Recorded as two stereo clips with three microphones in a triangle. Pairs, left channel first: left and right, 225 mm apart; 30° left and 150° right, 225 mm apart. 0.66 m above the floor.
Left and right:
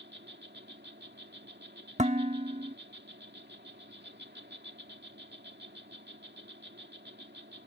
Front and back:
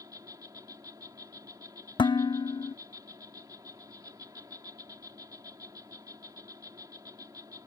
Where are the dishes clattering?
40° right.